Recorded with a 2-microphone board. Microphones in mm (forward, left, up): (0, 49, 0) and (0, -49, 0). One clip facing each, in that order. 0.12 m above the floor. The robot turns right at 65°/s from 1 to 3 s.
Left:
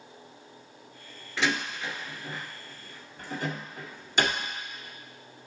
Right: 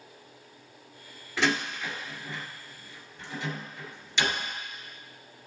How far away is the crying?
I don't hear crying.